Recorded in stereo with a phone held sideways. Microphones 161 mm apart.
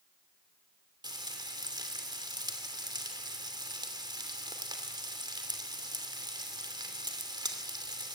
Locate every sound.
1.0 s frying: 25° right (ahead or behind), 2.5 m